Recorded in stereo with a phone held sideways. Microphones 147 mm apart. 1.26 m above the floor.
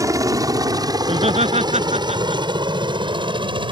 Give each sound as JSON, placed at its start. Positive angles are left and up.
{"t": 0.0, "sound": "a helicopter", "side_deg": -25}
{"t": 1.0, "sound": "laughter", "side_deg": -50}